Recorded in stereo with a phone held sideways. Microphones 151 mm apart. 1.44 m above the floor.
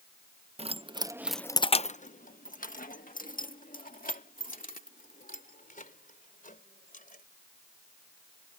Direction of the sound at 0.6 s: 45° right (ahead or behind).